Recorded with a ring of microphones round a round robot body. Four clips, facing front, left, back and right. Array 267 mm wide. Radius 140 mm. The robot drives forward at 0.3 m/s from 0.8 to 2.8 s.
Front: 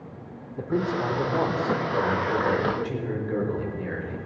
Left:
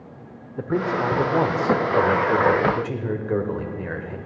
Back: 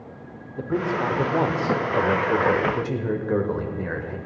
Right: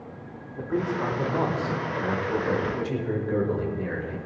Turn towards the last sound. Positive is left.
turn(degrees=145)